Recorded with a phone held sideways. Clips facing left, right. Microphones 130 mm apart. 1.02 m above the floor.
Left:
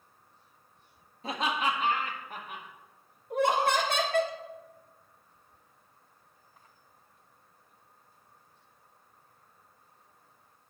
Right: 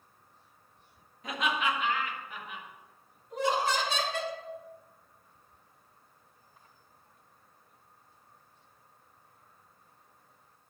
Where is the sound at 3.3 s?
55° left (ahead or behind), 1.3 m.